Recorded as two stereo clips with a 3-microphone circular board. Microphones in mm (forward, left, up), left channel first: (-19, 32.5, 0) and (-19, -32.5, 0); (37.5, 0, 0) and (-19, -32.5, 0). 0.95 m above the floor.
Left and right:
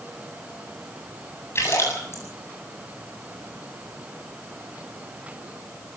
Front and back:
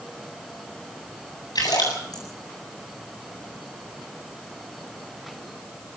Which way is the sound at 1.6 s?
40° left.